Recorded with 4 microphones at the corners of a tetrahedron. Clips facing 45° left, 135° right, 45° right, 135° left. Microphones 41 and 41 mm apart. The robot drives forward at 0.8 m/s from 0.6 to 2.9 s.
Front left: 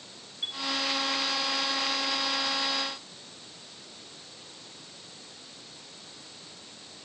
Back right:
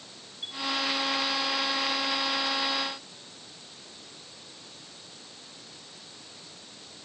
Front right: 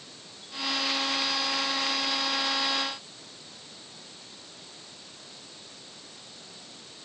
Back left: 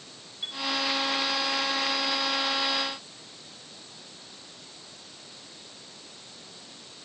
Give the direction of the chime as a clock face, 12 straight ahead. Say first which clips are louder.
Front left 3 dB, back left 5 dB; 9 o'clock.